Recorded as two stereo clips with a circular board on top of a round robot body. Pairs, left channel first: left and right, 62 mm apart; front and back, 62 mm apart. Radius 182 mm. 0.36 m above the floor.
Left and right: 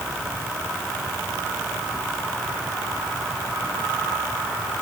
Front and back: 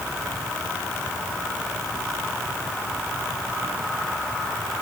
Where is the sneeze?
I don't hear a sneeze.